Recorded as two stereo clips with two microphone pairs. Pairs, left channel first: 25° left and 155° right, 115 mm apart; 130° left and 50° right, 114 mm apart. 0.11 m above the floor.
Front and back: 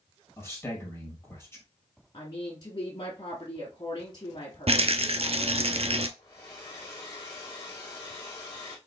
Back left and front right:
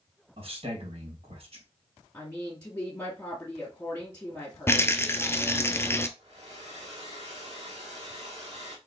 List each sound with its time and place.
0.4 s a man speaking: 35° right, 2 m
2.1 s a woman speaking: 60° left, 1.7 m
4.7 s a rattle: 165° right, 0.6 m
6.2 s a hair dryer: 20° right, 2 m